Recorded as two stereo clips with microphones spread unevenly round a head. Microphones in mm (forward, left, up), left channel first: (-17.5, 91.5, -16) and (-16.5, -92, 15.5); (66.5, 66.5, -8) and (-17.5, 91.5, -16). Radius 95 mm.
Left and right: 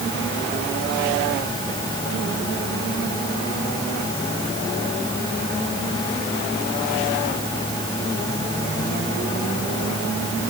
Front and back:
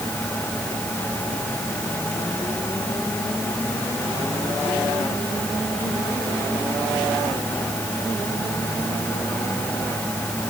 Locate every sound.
Only background noise.